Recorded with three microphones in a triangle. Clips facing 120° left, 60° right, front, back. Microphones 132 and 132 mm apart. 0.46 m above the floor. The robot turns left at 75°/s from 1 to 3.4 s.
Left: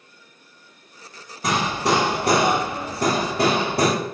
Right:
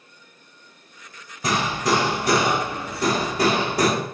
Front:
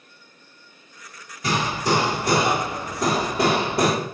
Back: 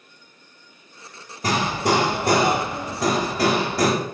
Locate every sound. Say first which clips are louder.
1.4 s hammering: left 1 dB, back 2 dB; 150° right, 2 m; by 3.9 s 65° left, 2 m